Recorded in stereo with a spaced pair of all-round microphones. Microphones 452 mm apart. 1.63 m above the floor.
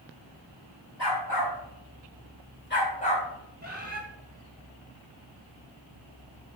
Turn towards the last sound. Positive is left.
turn(degrees=-20)  # may be behind; listen again after turning